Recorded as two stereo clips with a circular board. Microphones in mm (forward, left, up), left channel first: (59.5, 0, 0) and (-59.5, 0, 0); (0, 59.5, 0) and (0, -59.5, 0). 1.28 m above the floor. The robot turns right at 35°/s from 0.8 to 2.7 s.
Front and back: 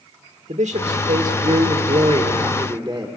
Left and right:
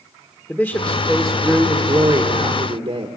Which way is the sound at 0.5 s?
175° left.